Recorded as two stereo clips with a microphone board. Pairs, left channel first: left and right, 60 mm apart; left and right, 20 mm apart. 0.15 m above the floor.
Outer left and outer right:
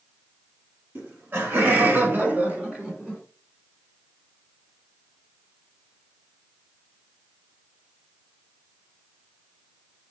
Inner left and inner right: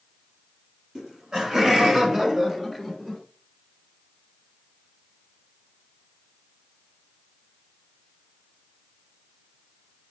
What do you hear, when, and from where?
0.9 s laughter: 35° right (ahead or behind), 1.7 m; by 3.2 s 10° right (ahead or behind), 1.2 m